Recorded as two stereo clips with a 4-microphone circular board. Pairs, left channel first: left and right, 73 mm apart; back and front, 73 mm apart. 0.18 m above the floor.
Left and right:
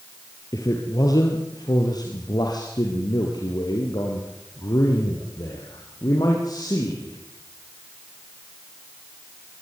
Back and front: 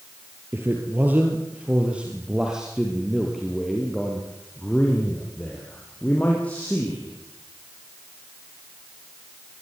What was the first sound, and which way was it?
A man speaking, 55° left.